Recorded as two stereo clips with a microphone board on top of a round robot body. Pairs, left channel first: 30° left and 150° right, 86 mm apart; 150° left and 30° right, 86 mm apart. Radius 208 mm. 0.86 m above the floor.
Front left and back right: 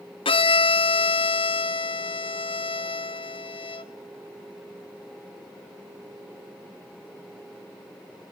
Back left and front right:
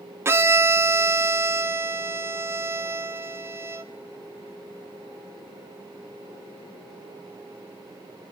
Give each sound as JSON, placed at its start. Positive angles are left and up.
{"t": 0.2, "sound": "a violin", "azimuth_deg": 30, "distance_m": 1.3}